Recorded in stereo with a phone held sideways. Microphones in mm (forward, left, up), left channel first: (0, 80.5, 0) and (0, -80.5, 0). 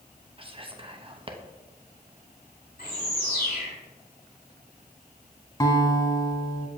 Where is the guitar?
25° left (ahead or behind), 1.0 m.